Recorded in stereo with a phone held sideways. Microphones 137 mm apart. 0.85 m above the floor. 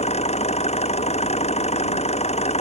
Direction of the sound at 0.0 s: 50° left (ahead or behind).